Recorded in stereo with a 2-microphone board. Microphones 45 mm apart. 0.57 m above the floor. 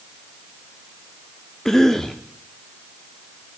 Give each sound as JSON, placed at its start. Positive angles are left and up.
{"t": 1.6, "sound": "a cough", "side_deg": 10, "distance_m": 0.7}